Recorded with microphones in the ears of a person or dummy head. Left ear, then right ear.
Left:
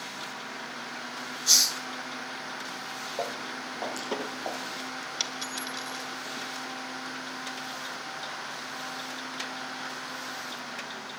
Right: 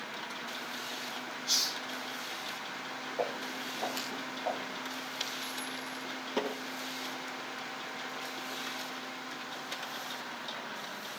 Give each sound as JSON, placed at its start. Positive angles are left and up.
{"t": 1.5, "sound": "a hiss", "side_deg": 60, "distance_m": 0.7}
{"t": 3.2, "sound": "footsteps", "side_deg": 45, "distance_m": 6.5}
{"t": 5.2, "sound": "a dropped coin", "side_deg": 40, "distance_m": 3.0}